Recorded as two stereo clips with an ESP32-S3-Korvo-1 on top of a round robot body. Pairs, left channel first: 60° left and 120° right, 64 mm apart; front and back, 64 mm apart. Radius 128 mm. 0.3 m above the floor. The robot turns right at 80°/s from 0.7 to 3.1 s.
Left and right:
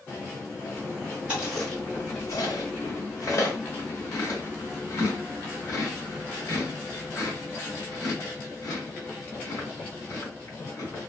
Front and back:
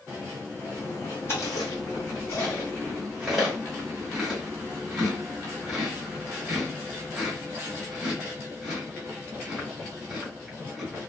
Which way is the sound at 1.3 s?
50° right.